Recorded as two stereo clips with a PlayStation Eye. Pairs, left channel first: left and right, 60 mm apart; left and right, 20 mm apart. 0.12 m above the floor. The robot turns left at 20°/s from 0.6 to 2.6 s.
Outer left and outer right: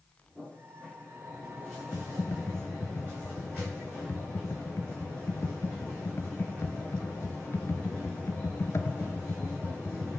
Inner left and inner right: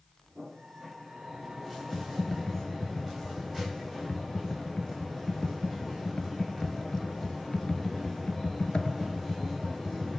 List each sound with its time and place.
1.9 s typing on a keyboard: 45° left (ahead or behind), 0.7 m; by 10.2 s 50° left (ahead or behind), 0.7 m